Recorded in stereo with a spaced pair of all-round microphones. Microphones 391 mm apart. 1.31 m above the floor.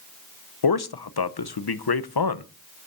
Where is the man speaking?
70° left (ahead or behind), 0.7 m.